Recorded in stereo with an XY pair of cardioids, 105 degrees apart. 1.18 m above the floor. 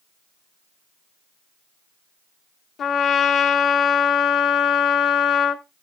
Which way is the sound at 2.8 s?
55° left.